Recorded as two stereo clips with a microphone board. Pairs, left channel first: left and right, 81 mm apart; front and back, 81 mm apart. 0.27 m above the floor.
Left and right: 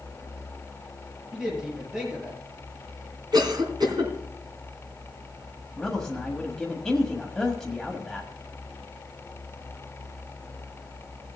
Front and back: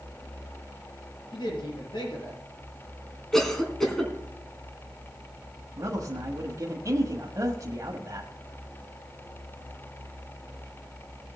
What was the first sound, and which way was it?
A woman speaking, 5° right.